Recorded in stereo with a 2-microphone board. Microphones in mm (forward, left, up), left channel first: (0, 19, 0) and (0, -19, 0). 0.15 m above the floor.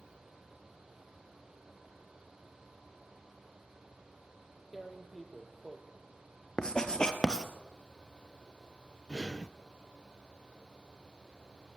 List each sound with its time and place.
4.7 s tearing paper: 5° right (ahead or behind), 2 m
6.6 s writing: 20° left (ahead or behind), 1.7 m
9.1 s breathing: 20° left (ahead or behind), 0.5 m